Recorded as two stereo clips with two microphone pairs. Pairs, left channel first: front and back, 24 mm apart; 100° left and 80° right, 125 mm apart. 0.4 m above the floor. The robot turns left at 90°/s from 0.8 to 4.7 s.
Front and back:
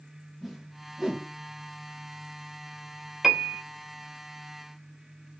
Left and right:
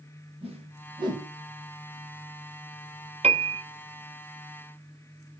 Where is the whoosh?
95° right, 0.7 m; by 1.3 s 140° right, 0.7 m.